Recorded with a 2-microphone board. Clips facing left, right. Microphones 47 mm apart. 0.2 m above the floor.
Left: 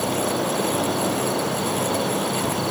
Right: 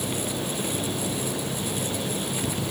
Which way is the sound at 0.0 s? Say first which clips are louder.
Left 7 dB; 80° left.